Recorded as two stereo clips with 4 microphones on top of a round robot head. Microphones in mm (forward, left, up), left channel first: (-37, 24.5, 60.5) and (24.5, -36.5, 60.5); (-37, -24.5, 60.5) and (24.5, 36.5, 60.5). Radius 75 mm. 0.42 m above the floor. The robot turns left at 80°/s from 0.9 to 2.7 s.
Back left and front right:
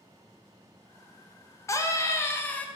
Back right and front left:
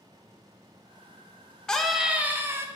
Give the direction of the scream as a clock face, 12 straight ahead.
7 o'clock.